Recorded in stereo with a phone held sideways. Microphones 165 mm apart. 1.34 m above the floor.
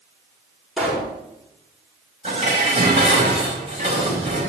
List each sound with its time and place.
0.8 s a pop: 5° right (ahead or behind), 6 m
2.2 s dishes clattering: 35° right (ahead or behind), 6 m